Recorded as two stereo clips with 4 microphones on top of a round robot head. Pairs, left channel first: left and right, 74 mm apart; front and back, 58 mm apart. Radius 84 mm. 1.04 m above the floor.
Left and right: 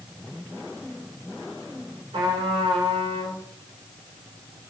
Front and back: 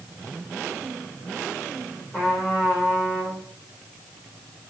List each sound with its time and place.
2.1 s a trumpet: 75° right, 3.5 m